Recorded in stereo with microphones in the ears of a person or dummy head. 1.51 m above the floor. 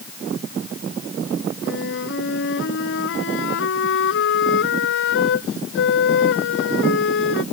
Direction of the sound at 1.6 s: 75° left (ahead or behind).